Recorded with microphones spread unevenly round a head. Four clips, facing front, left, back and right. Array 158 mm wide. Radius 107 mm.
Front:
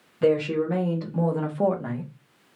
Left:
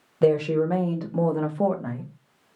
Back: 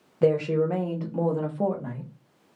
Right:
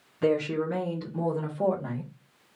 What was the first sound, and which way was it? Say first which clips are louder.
A woman speaking: left 5 dB, even; 105° left.